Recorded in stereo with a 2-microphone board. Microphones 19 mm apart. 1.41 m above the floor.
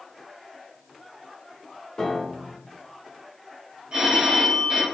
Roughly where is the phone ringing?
Right.